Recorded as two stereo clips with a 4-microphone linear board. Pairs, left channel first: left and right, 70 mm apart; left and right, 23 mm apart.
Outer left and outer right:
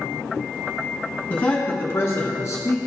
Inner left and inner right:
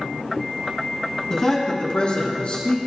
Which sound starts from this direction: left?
A man speaking, at 1.3 s.